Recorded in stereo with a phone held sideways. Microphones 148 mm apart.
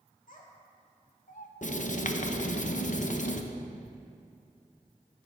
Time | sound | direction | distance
0.3 | a child speaking | 65° left (ahead or behind) | 2.0 m
1.6 | writing | 60° left (ahead or behind) | 0.7 m